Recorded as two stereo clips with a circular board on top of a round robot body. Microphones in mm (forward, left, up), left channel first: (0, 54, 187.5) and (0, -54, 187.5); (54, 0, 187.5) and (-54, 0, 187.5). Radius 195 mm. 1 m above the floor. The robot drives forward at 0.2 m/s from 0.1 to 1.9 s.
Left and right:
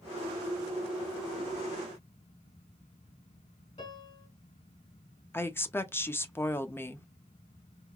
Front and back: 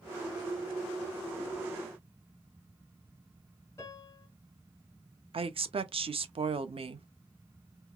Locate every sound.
3.8 s a piano: 70° left, 1.6 m
5.3 s a woman speaking: 155° left, 0.6 m